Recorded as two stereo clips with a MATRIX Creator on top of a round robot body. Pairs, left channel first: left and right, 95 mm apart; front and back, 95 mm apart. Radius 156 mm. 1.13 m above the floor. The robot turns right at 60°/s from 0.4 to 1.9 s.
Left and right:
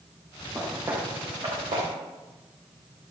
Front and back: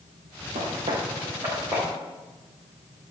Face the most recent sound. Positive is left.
turn(degrees=-115)